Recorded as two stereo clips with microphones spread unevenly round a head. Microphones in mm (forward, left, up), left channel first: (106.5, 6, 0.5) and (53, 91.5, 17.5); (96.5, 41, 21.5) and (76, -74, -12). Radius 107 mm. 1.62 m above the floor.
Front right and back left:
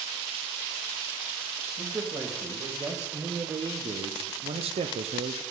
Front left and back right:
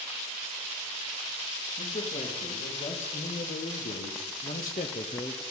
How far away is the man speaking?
About 3 m.